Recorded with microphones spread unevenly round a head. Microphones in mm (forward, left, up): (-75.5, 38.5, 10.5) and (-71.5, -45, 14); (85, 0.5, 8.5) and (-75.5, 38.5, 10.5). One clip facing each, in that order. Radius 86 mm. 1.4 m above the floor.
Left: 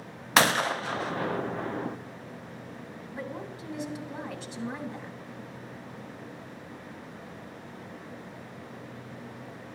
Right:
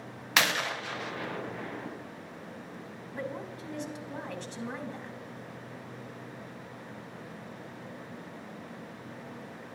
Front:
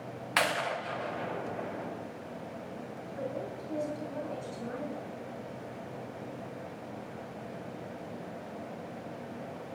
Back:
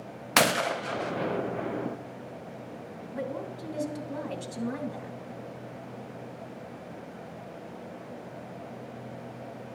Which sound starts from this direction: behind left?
A gunshot, at 0.4 s.